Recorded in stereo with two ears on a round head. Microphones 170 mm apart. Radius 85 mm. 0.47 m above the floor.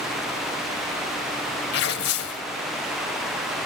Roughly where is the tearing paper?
Left.